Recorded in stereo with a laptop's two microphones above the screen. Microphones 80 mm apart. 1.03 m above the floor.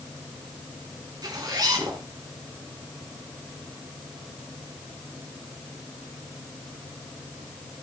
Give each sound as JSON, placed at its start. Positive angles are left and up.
{"t": 1.2, "sound": "a zipper", "side_deg": -55, "distance_m": 4.0}